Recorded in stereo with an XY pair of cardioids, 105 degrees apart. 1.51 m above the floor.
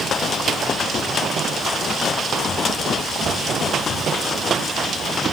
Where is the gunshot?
No gunshot in this recording.